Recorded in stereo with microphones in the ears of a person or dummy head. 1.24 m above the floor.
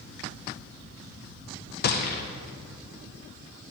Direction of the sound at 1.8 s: 50° left (ahead or behind).